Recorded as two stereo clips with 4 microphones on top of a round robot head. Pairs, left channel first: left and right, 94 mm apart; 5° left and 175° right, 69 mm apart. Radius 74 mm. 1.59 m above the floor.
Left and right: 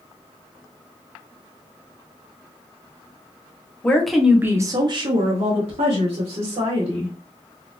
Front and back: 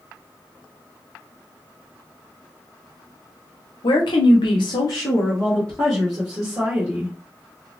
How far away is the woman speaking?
About 0.9 m.